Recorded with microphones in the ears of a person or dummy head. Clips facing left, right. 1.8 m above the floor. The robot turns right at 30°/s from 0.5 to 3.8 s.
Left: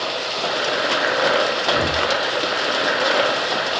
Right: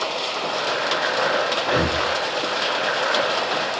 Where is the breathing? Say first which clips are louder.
Even; 40° right (ahead or behind), 1.7 m; by 2.0 s 50° right (ahead or behind), 1.7 m.